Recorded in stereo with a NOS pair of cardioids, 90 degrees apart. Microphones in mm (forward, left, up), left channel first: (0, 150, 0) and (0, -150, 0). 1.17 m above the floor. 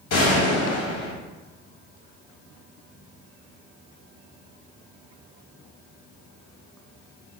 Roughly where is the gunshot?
Ahead left.